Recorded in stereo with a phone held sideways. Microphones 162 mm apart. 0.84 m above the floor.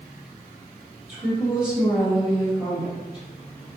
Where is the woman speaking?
5° right (ahead or behind), 1.0 m.